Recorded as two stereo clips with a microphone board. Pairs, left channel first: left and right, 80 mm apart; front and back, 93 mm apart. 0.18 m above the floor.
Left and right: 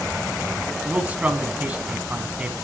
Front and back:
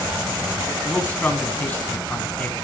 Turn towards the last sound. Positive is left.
turn(degrees=-45)